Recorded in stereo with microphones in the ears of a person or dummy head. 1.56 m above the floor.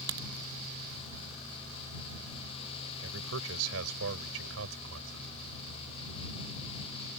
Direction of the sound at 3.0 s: 85° right.